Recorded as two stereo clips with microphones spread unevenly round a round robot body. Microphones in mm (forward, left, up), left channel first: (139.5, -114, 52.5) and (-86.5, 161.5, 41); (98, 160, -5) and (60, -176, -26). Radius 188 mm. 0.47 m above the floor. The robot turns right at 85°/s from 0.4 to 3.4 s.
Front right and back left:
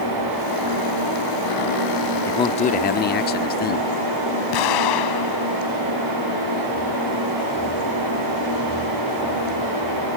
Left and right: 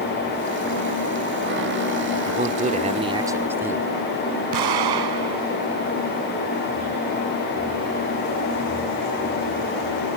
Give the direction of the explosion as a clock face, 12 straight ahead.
3 o'clock.